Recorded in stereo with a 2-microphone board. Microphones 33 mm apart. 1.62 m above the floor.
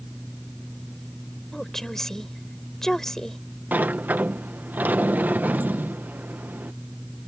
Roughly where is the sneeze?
No sneeze in this recording.